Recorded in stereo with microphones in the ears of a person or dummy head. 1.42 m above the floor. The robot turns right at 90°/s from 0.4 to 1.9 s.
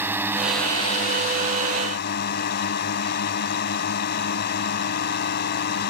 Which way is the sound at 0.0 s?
10° right.